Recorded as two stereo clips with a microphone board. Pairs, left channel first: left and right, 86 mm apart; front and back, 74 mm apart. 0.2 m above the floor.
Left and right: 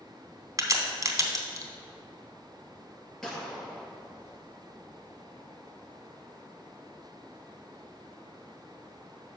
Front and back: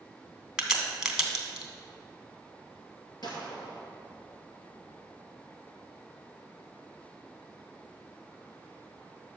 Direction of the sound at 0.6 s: 105° right.